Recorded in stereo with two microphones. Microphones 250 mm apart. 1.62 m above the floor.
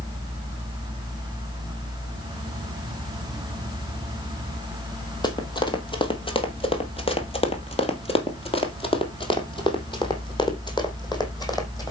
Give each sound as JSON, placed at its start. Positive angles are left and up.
{"t": 5.2, "sound": "running footsteps", "side_deg": 15, "distance_m": 2.0}